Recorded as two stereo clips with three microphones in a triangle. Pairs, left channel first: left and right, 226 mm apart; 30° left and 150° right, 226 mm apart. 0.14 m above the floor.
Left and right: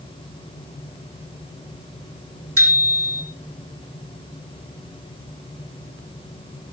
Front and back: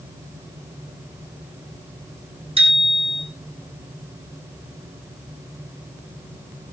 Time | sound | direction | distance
2.6 | a bicycle bell | 85° right | 4.5 m